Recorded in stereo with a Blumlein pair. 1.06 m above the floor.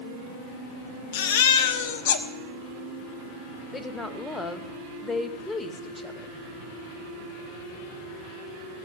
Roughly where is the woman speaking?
Ahead.